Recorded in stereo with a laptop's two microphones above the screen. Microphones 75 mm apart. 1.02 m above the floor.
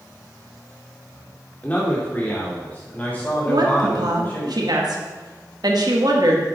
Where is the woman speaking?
65° right (ahead or behind), 1.8 m.